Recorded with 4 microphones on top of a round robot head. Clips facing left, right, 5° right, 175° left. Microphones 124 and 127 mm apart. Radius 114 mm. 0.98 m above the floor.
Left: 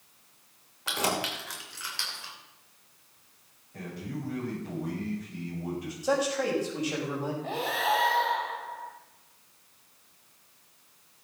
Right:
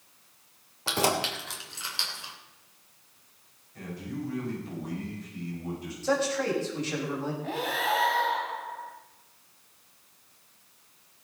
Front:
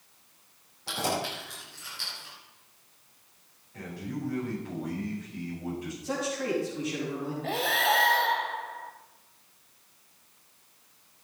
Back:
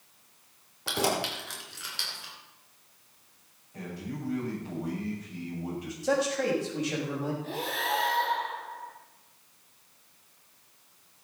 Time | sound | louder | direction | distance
0.9 | keys jangling | right 3 dB, back 2 dB | 145° right | 3 m
3.7 | a man speaking | right 1 dB, front 1 dB | 105° left | 7.5 m
6.0 | a man speaking | even, back 5 dB | 165° left | 6 m
7.4 | breathing | left 2 dB, front 5 dB | 20° left | 2 m